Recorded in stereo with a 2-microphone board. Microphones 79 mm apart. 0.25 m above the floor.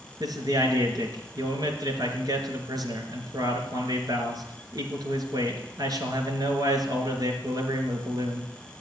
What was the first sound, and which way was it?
A man speaking, 55° right (ahead or behind).